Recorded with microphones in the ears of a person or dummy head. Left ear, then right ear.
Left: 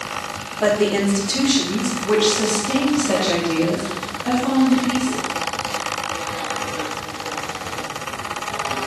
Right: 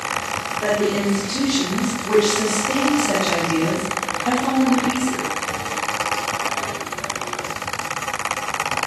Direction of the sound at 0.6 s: 45° left (ahead or behind).